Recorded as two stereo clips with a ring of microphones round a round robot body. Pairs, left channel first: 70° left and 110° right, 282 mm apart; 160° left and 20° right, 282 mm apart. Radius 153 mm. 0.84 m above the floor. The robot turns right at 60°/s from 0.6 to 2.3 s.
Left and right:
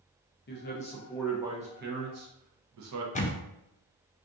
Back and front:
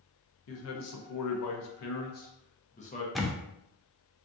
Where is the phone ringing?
I don't hear a phone ringing.